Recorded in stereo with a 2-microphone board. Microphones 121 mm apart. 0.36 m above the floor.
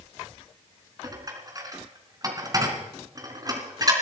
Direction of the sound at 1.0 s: 30° right (ahead or behind).